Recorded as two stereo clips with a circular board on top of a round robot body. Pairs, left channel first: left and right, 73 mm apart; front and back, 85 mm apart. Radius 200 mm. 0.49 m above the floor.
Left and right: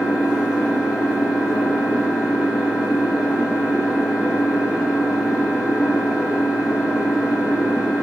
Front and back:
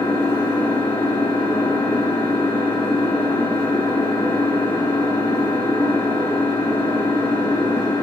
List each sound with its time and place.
0.0 s an engine running: 5° right, 6 m